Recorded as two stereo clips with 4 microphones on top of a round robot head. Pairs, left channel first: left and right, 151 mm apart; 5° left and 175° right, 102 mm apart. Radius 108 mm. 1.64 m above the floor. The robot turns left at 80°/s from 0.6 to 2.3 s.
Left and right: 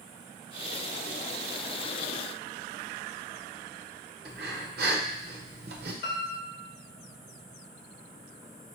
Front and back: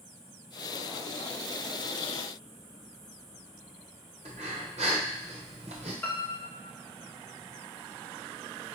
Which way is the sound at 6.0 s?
80° left.